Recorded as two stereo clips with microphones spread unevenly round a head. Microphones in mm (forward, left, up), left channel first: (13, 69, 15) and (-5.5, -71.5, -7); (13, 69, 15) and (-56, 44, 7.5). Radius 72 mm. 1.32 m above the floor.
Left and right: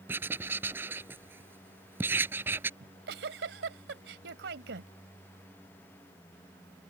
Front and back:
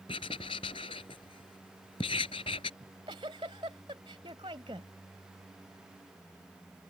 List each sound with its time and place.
0.1 s writing: 20° right
2.8 s a giggle: 105° right